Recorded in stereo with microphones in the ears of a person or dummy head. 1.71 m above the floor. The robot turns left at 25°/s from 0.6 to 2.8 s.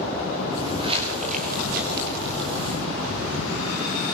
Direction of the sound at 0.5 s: 20° right (ahead or behind).